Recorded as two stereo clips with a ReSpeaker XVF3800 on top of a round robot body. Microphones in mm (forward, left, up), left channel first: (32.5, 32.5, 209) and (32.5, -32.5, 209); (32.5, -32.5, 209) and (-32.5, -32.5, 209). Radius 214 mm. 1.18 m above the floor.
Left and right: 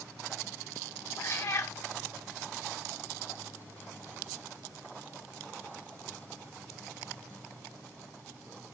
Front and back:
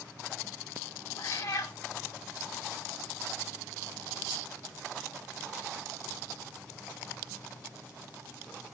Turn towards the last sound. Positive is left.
turn(degrees=40)